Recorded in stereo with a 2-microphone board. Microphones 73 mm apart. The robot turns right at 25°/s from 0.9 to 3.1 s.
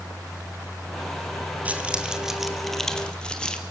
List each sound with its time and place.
1.6 s keys jangling: 20° right (ahead or behind), 2 m; by 3.6 s 10° left (ahead or behind), 2 m